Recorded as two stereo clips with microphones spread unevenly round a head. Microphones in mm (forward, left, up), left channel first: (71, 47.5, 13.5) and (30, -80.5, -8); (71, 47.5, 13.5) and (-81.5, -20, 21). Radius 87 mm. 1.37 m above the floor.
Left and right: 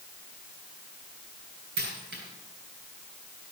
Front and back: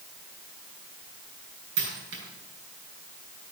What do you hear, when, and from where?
1.8 s a dropped coin: 130° right, 6 m